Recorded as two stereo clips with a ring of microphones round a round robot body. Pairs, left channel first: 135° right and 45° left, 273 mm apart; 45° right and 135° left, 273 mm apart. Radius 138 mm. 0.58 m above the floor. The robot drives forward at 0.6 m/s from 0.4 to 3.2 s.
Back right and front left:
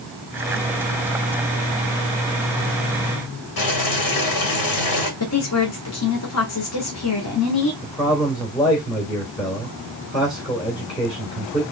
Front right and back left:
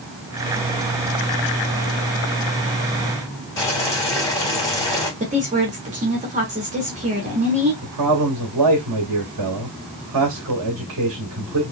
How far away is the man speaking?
About 2 m.